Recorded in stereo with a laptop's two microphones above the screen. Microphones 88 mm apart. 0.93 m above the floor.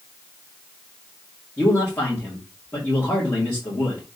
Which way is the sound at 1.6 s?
20° left (ahead or behind).